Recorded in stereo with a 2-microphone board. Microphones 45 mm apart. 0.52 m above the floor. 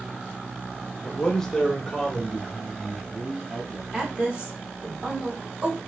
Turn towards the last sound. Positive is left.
turn(degrees=-20)  # may be behind; listen again after turning